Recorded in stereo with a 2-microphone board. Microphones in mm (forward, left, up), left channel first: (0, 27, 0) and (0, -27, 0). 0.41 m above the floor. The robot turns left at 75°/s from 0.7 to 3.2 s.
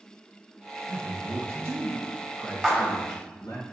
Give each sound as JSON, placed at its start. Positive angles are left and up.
{"t": 0.9, "sound": "a man speaking", "azimuth_deg": -90, "distance_m": 3.5}
{"t": 2.6, "sound": "a clap", "side_deg": 0, "distance_m": 2.5}